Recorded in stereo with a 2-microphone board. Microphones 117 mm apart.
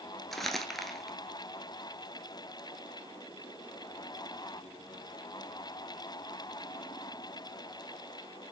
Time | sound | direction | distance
0.3 | crumpling | centre (ahead or behind) | 1.3 m